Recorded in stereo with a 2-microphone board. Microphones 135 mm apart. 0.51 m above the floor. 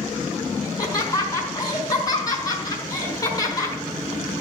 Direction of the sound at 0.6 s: 25° left (ahead or behind).